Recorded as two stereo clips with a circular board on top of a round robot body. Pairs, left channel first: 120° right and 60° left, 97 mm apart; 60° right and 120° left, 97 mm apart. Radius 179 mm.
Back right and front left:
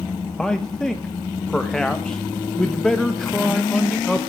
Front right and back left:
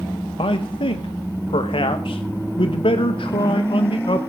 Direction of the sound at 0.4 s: 35° right.